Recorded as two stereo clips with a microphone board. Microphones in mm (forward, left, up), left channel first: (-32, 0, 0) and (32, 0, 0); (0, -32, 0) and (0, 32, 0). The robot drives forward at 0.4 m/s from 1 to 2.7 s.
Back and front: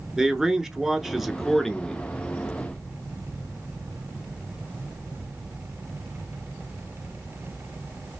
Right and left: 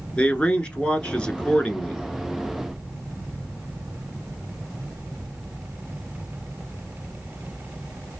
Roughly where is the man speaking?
Ahead right.